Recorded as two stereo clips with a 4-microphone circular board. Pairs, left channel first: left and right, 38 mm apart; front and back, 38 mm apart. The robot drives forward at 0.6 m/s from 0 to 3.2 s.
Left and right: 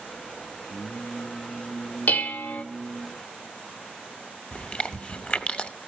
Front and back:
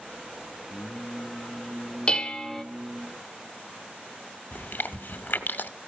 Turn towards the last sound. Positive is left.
turn(degrees=25)